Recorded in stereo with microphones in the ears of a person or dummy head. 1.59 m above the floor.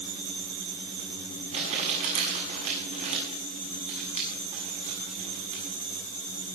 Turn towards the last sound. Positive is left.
turn(degrees=-40)  # may be behind; listen again after turning